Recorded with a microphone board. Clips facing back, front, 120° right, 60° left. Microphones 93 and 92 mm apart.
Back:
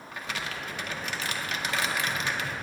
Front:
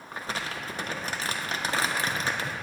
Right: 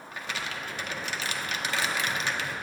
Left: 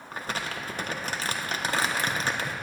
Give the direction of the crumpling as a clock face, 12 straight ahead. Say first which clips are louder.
Front 2 dB, left 3 dB; 11 o'clock.